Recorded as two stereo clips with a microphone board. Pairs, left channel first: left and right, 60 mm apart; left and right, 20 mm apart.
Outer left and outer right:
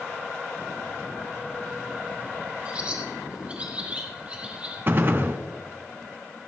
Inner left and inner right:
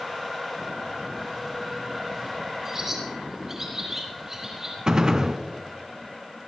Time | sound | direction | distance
2.6 | a bird | 25° right (ahead or behind) | 5 m
4.9 | a gunshot | 40° right (ahead or behind) | 1.0 m